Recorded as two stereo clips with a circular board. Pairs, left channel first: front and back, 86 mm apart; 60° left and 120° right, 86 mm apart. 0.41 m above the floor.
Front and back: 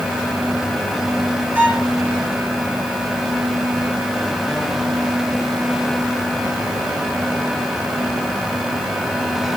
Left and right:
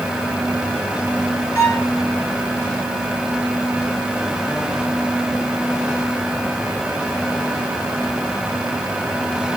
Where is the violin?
110° left, 8.5 m.